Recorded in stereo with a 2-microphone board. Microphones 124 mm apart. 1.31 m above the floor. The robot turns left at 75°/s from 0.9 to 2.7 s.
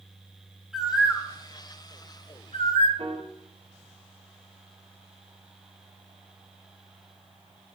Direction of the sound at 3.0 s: 50° right (ahead or behind).